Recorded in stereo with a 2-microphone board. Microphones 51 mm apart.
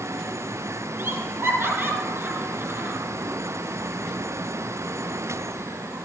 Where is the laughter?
45° right (ahead or behind), 3.5 m.